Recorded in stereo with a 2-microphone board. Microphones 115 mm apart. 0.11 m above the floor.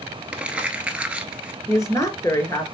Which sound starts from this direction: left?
A woman speaking, at 1.7 s.